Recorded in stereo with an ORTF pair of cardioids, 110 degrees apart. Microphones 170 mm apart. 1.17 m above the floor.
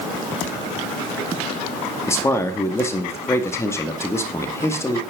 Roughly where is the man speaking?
Ahead.